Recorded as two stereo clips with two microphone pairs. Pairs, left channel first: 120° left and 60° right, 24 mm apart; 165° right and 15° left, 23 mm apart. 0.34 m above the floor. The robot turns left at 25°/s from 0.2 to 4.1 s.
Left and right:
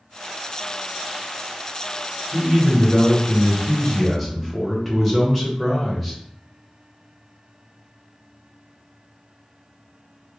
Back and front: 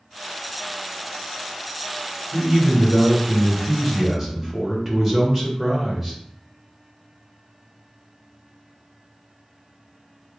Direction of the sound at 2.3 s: 80° left.